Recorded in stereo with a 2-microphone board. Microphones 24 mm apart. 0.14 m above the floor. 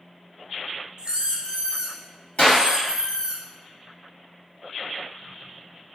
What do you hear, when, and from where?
1.0 s a squeak: 35° right (ahead or behind), 0.7 m
2.4 s a clap: 65° left (ahead or behind), 1.9 m